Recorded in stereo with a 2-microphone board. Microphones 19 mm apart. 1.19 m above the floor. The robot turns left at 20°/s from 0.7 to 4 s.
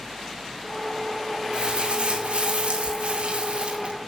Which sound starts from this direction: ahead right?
Crumpling, at 1.5 s.